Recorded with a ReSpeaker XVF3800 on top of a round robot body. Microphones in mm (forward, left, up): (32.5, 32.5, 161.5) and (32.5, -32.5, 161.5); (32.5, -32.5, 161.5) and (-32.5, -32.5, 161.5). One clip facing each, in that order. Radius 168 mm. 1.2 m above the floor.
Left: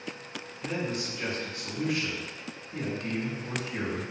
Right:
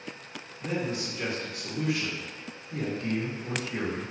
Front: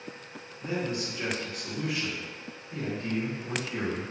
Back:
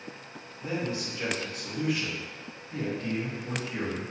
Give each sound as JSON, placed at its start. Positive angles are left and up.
{"t": 0.6, "sound": "a man speaking", "azimuth_deg": -90, "distance_m": 1.9}